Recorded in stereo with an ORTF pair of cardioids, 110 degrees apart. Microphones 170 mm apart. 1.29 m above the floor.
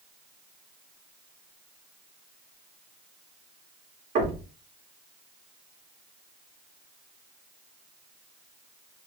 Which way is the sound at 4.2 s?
50° right.